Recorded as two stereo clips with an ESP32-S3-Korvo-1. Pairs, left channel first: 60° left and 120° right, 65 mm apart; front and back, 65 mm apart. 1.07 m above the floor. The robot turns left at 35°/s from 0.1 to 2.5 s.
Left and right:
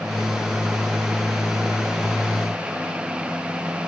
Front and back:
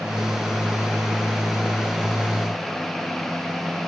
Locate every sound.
Only background noise.